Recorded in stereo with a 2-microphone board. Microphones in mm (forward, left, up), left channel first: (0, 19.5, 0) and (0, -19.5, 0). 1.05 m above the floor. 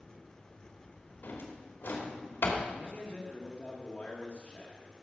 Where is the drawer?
60° left (ahead or behind), 2.5 m.